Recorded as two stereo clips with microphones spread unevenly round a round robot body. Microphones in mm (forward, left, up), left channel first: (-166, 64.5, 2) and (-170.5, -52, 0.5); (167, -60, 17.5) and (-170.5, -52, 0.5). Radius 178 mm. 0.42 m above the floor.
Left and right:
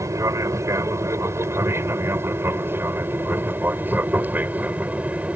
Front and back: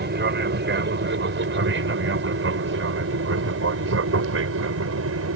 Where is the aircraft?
140° right; by 5.4 s 165° right.